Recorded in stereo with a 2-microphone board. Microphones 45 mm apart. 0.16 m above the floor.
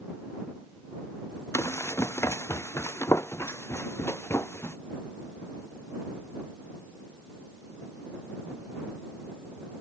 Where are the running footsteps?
90° left; by 4.8 s 65° left (ahead or behind).